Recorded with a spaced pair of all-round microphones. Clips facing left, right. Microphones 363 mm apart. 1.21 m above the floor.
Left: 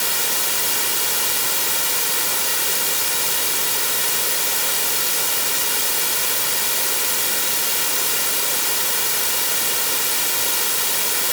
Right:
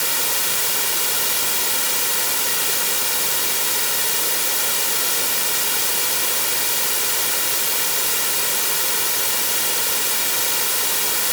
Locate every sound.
Only background noise.